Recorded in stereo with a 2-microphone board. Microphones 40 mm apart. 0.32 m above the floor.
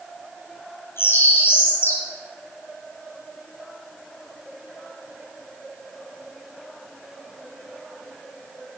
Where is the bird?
85° left, 5.5 m.